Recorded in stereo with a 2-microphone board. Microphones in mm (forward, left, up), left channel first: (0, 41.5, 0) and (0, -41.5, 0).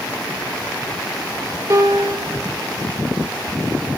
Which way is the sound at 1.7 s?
40° right (ahead or behind).